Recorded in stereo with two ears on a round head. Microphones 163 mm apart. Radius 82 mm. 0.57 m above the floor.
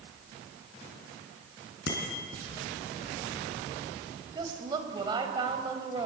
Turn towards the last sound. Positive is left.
turn(degrees=-25)  # may be behind; listen again after turning